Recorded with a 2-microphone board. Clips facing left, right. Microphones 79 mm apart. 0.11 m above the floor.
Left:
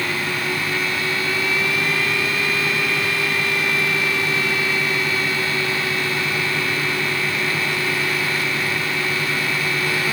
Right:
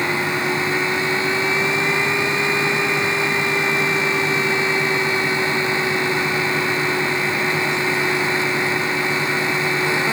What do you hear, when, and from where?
Only background noise.